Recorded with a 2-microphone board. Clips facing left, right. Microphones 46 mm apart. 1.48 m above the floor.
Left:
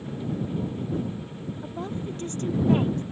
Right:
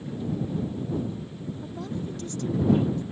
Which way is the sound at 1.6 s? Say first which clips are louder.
Left 2 dB; 25° left (ahead or behind).